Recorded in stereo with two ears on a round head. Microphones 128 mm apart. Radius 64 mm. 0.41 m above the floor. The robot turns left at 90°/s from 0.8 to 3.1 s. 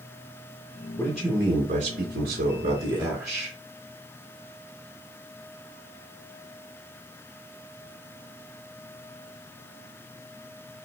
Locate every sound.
1.0 s a man speaking: 15° left, 3.5 m; by 3.5 s 175° right, 3.5 m